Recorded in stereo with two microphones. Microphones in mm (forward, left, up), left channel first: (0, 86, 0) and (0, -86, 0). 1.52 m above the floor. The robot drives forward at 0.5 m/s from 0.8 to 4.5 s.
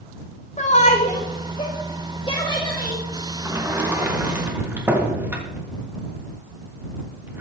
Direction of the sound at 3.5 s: 15° right (ahead or behind).